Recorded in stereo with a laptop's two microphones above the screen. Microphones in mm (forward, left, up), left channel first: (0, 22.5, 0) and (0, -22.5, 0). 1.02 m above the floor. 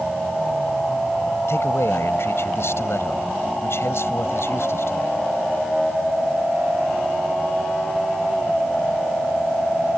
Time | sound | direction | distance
1.5 | a man speaking | 80° left | ?